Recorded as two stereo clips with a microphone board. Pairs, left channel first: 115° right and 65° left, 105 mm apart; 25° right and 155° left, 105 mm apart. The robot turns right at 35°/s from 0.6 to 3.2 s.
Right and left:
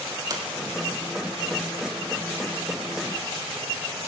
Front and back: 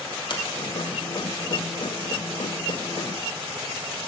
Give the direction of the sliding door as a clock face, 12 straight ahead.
11 o'clock.